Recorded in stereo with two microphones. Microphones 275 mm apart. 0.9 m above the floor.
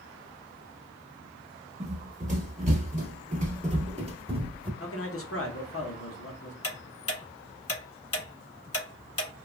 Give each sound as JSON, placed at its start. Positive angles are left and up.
{"t": 1.8, "sound": "running footsteps", "side_deg": -25, "distance_m": 1.2}
{"t": 4.8, "sound": "a man speaking", "side_deg": 55, "distance_m": 0.8}
{"t": 6.6, "sound": "ticking", "side_deg": 55, "distance_m": 0.6}